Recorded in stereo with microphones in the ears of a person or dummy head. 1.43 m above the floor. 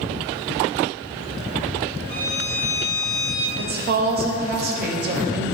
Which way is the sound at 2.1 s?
35° left (ahead or behind).